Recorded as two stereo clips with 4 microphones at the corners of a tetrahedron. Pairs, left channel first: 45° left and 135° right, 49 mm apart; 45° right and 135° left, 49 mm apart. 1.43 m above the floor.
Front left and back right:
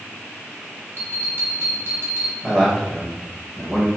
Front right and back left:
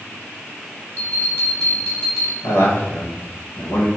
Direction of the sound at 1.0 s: 95° right.